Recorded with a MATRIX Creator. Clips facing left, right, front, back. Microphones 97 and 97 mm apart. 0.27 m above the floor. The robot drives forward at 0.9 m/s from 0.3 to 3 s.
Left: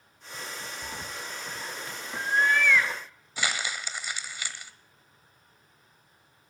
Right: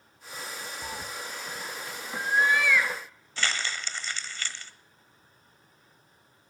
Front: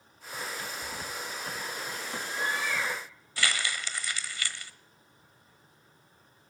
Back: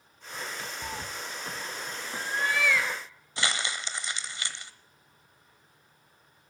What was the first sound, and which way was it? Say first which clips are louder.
A cat meowing: right 1 dB, back 1 dB; 150° right.